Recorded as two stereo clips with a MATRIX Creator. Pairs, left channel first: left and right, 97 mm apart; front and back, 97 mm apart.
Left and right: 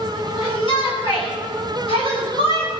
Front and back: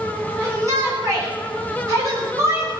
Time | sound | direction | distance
0.4 | a shout | 125° left | 10 m